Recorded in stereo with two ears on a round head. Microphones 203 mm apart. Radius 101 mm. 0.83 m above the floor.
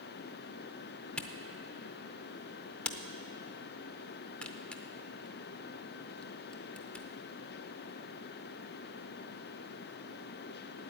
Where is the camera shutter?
5° left (ahead or behind), 0.6 m.